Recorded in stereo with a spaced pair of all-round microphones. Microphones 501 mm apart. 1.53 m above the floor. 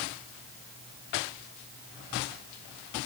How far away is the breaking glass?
No breaking glass in this recording.